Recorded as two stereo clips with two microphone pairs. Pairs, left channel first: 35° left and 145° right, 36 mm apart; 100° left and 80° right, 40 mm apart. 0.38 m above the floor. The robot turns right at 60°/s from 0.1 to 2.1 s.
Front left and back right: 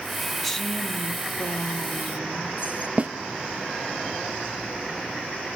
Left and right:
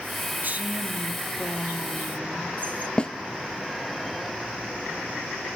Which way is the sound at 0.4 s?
45° right.